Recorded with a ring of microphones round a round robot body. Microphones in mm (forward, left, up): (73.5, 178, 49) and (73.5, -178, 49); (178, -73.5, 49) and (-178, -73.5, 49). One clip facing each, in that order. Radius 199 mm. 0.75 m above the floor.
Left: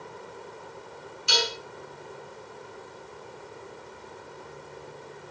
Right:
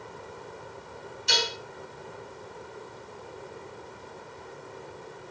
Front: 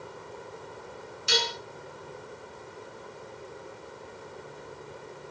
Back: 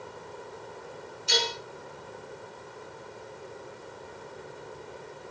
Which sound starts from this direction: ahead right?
Dishes clattering, at 1.3 s.